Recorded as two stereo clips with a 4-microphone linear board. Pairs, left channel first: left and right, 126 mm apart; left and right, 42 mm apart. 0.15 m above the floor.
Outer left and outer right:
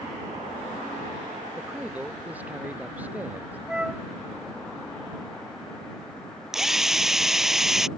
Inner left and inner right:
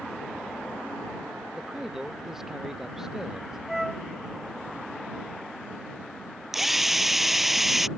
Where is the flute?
5° right (ahead or behind).